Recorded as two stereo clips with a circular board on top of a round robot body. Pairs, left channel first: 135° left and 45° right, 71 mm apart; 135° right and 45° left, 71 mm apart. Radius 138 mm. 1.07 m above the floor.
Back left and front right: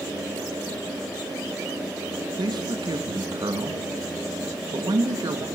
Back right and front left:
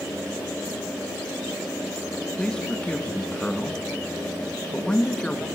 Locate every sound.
2.4 s a man speaking: 60° right, 2 m